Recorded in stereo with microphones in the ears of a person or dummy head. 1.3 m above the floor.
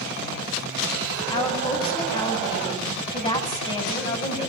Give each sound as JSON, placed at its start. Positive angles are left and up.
{"t": 1.3, "sound": "a woman speaking", "side_deg": 30, "distance_m": 7.5}